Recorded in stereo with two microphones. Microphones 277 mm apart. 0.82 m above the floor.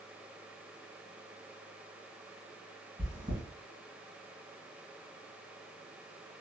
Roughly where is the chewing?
Right.